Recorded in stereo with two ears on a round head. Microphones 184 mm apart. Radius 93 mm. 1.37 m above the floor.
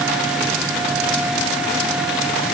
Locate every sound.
Only background noise.